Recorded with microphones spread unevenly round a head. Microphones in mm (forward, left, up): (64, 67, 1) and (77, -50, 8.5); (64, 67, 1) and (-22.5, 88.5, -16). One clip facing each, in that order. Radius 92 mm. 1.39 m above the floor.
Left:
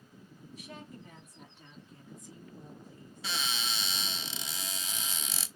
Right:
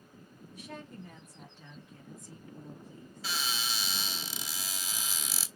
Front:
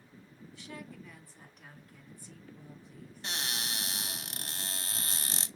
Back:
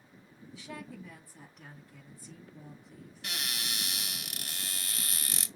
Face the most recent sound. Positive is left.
turn(degrees=0)